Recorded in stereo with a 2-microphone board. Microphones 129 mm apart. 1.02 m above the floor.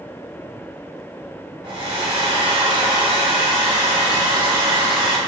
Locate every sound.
1.6 s a hair dryer: 40° right (ahead or behind), 0.9 m